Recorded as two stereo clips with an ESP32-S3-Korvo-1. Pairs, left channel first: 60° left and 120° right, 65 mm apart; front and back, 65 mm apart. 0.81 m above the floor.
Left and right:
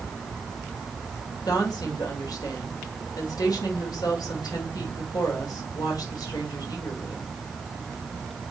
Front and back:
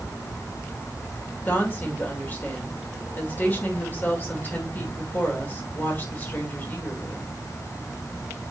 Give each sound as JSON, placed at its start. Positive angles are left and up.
{"t": 1.4, "sound": "a woman speaking", "azimuth_deg": 60, "distance_m": 2.5}